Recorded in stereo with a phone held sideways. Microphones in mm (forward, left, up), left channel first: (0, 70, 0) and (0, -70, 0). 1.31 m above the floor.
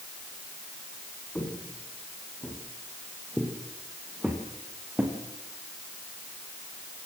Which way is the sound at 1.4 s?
10° left (ahead or behind).